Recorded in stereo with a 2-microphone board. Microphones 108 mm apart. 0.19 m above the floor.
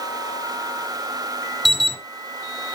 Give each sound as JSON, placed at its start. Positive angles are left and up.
{"t": 1.6, "sound": "an alarm", "side_deg": 0, "distance_m": 1.4}